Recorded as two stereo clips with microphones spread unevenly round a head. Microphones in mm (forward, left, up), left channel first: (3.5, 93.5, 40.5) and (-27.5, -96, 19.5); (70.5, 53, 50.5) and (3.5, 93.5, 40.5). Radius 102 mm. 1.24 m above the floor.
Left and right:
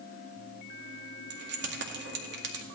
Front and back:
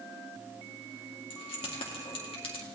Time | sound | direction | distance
1.3 | keys jangling | 60° right | 1.9 m